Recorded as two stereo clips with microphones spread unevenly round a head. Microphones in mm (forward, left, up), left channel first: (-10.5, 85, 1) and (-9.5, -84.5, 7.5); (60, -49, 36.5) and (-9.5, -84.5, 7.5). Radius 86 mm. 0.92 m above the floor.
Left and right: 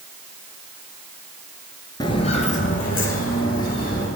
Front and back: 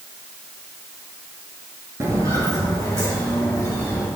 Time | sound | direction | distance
2.0 | footsteps | 125° left | 0.9 m